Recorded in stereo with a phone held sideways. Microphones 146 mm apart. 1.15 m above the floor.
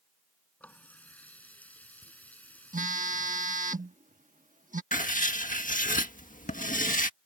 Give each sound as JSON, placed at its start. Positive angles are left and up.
{"t": 0.6, "sound": "a running tap", "side_deg": 10}
{"t": 2.7, "sound": "a phone buzzing", "side_deg": -65}
{"t": 4.9, "sound": "writing", "side_deg": 65}